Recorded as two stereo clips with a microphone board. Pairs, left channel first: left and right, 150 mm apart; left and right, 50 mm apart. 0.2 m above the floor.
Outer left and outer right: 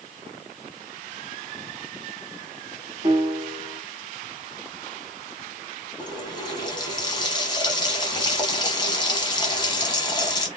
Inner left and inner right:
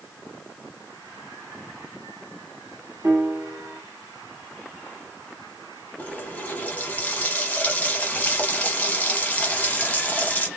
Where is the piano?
35° right (ahead or behind), 1.1 m.